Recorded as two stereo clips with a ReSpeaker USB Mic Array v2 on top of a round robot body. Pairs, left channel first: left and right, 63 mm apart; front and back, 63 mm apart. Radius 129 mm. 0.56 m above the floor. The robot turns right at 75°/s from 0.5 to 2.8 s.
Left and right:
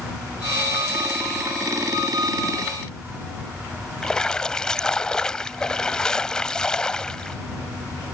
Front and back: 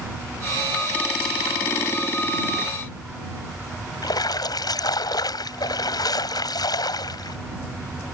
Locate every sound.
4.0 s a splash: 15° left